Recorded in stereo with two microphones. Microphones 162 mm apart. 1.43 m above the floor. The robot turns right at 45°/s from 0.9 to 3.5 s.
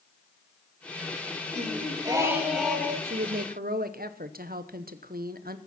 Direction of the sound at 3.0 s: 70° right (ahead or behind).